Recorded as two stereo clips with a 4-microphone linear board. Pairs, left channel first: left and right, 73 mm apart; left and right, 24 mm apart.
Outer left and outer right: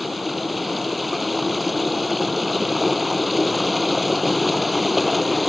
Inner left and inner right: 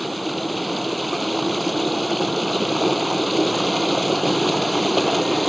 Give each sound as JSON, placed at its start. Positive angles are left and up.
{"t": 0.0, "sound": "running water", "side_deg": 0}